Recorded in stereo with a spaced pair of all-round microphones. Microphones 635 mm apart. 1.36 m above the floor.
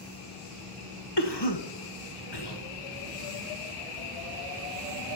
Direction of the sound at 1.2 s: 40° left (ahead or behind).